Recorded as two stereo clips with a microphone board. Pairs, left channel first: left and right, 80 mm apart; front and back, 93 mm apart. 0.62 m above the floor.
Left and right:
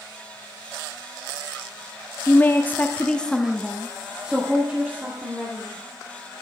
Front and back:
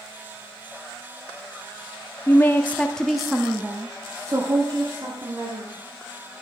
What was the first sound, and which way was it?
A woman speaking, 45° left.